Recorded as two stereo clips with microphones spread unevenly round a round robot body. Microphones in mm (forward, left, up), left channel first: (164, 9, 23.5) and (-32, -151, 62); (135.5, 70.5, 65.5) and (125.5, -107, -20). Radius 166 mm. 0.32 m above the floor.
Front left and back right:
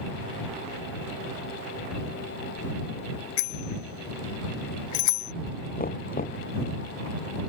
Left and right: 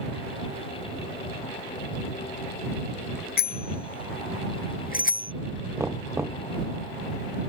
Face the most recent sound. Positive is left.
turn(degrees=-15)